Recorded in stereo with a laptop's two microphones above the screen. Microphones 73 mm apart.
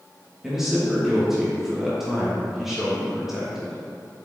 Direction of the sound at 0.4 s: 5° right (ahead or behind).